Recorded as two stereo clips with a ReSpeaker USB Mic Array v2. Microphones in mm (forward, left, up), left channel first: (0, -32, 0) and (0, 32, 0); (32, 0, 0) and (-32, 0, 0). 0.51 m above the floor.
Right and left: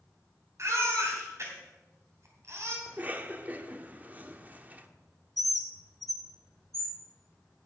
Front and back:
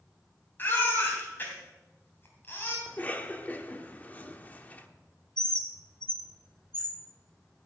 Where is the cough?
45° left, 1.0 m.